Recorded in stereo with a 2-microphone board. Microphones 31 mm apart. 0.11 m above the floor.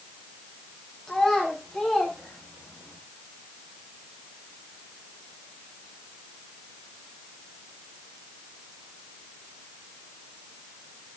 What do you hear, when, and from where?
1.1 s a child speaking: 5° left (ahead or behind), 8 m; by 3.0 s 20° left (ahead or behind), 6.5 m